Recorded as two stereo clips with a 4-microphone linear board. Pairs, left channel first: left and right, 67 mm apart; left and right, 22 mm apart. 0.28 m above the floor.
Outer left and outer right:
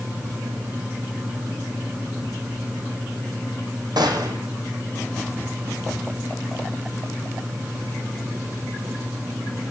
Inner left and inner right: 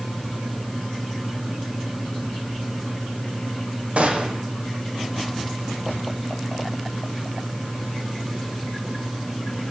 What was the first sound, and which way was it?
A gunshot, 80° right.